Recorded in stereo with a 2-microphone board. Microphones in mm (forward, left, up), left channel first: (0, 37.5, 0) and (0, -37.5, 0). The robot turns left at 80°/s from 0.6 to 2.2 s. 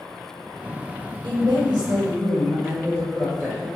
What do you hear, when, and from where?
1.2 s a woman speaking: 75° right, 1.5 m; by 3.7 s 155° right, 1.5 m